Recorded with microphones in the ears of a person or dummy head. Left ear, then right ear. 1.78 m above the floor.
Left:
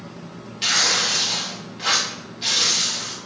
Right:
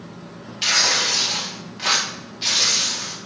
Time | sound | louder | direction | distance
0.6 | tearing paper | right 1 dB | 15° right (ahead or behind) | 0.7 m